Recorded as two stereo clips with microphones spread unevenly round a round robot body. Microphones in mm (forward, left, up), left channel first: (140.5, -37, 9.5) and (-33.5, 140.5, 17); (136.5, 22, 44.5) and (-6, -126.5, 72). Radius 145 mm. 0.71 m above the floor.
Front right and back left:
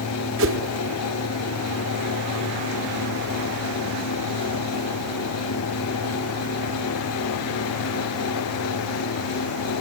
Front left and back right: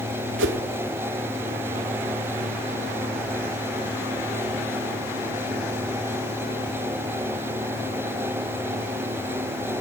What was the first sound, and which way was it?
A whoosh, 175° right.